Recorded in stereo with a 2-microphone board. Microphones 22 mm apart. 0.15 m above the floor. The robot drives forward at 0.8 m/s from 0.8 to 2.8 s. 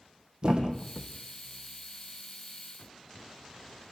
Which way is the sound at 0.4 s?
40° right (ahead or behind).